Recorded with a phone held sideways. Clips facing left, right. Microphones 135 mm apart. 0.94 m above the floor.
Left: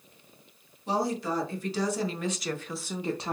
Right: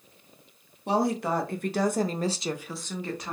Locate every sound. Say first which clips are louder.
0.9 s a woman speaking: right 3 dB; 65° right (ahead or behind), 1.3 m; by 3.4 s 30° left (ahead or behind), 0.7 m